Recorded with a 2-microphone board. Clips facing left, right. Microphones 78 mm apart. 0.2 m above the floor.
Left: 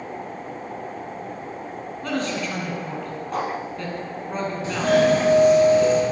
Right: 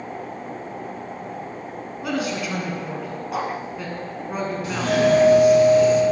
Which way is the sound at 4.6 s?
30° left (ahead or behind).